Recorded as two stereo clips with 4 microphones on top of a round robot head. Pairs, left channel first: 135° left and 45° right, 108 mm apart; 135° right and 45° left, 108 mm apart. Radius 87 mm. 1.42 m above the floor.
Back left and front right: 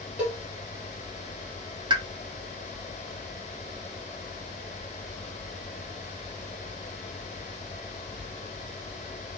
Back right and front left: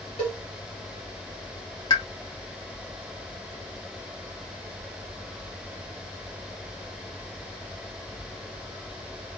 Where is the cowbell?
110° right, 1.3 m.